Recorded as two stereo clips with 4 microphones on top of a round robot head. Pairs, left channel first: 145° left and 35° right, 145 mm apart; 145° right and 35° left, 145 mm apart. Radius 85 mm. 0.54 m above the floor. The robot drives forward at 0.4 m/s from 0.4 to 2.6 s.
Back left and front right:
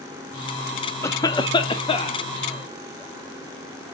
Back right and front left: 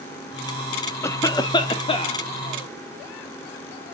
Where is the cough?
Straight behind, 0.6 m.